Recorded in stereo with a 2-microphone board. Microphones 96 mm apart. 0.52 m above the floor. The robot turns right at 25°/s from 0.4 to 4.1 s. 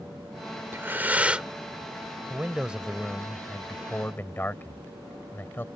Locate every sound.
0.7 s breathing: 25° right (ahead or behind); by 1.5 s 10° right (ahead or behind)
2.3 s a man speaking: 20° right; by 5.7 s 25° left